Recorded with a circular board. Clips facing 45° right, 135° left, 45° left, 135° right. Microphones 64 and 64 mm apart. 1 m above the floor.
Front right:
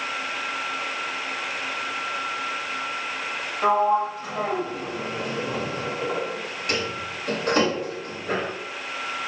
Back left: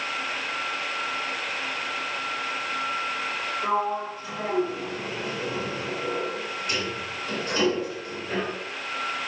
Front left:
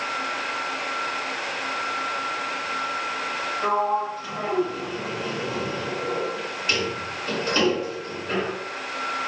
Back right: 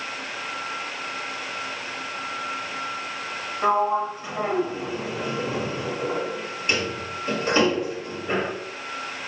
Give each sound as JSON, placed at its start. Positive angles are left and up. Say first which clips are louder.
{"t": 3.6, "sound": "a sliding door", "louder": "front right 7 dB, back right 2 dB", "azimuth_deg": -70, "distance_m": 3.5}